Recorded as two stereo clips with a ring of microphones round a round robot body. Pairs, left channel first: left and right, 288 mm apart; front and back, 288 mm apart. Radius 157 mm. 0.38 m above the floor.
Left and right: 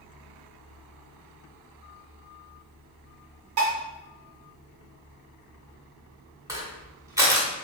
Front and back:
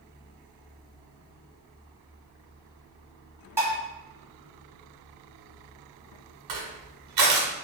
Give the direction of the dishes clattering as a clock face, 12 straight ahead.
3 o'clock.